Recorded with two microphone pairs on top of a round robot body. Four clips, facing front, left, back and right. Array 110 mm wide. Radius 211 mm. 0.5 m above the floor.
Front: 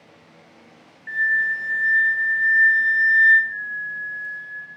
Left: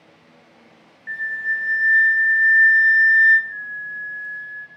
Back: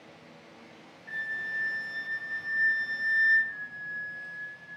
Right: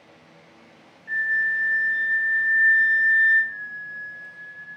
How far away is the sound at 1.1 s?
About 0.7 m.